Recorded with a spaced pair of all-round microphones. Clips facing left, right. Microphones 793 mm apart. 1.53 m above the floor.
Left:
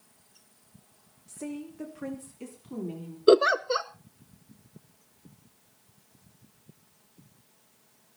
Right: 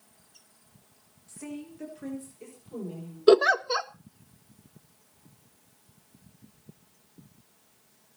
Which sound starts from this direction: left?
A woman speaking, at 1.3 s.